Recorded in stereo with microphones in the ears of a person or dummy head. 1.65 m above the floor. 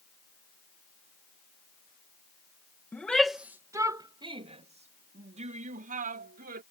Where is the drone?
I don't hear a drone.